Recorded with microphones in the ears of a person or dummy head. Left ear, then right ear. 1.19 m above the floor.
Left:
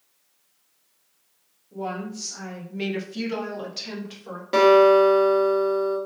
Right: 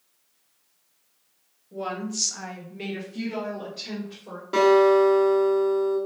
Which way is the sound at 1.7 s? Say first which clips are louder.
Right 1 dB; 60° right (ahead or behind).